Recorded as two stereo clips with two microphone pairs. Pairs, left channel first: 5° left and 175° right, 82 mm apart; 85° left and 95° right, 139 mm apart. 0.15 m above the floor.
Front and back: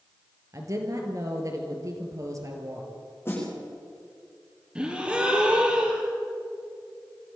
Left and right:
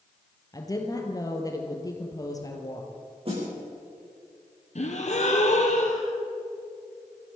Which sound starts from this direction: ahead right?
A snare drum, at 3.2 s.